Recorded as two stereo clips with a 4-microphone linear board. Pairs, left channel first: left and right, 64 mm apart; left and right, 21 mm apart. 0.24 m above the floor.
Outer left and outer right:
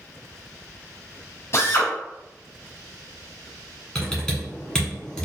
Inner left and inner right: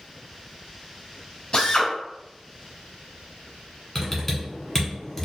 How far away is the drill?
About 1.3 m.